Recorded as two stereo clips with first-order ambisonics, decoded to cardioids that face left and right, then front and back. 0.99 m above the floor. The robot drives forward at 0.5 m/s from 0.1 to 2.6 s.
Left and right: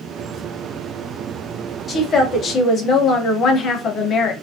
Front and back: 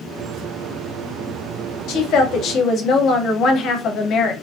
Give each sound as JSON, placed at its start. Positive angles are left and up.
{"t": 1.9, "sound": "a woman speaking", "azimuth_deg": 25, "distance_m": 0.9}